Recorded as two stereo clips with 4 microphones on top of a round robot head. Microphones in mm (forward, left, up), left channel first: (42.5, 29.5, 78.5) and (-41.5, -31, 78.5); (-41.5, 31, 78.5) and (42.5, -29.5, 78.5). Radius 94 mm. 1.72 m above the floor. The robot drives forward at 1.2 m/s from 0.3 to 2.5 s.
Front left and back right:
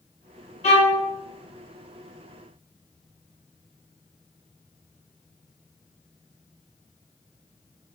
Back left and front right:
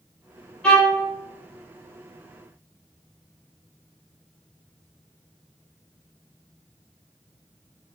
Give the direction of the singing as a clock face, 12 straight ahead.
I don't hear singing.